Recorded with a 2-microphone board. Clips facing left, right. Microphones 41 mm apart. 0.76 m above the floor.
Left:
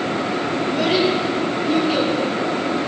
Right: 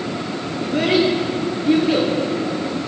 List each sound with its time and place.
0.6 s a child speaking: 80° right, 9 m